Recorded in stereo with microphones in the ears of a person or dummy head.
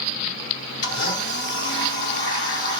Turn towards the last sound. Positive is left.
turn(degrees=55)  # may be behind; listen again after turning